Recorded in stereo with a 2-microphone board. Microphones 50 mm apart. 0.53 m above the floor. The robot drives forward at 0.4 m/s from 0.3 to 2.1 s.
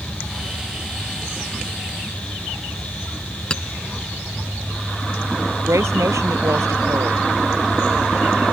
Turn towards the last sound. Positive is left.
turn(degrees=-75)  # may be behind; listen again after turning